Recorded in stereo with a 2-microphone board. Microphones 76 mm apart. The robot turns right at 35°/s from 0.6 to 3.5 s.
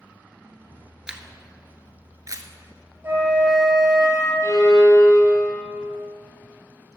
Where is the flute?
35° right (ahead or behind), 3.5 m; by 4.3 s 50° right (ahead or behind), 3.5 m.